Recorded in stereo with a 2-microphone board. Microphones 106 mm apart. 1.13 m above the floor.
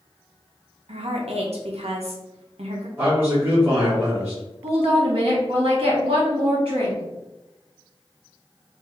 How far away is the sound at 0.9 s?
About 0.7 m.